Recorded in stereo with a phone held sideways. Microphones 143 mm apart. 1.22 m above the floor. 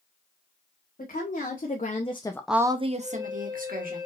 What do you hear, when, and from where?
1.0 s a woman speaking: 70° left (ahead or behind), 1.6 m; by 4.0 s 70° right (ahead or behind), 1.6 m
3.0 s a flute: 25° right (ahead or behind), 2.5 m